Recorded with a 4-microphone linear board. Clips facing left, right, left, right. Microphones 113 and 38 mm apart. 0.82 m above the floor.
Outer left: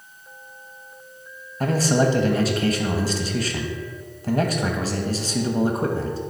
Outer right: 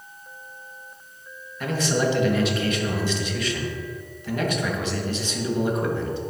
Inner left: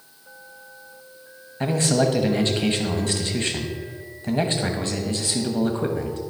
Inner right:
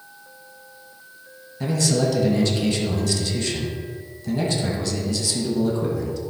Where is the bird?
No bird in this recording.